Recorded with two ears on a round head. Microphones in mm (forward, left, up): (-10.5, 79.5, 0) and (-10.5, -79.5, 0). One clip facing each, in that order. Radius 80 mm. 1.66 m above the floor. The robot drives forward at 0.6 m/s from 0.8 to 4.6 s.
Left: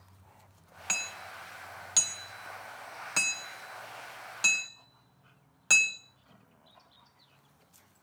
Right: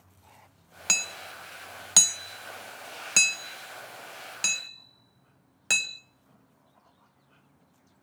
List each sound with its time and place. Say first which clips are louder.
0.9 s hammering: right 3 dB; 45° right (ahead or behind), 0.9 m; by 6.0 s 20° right (ahead or behind), 1.8 m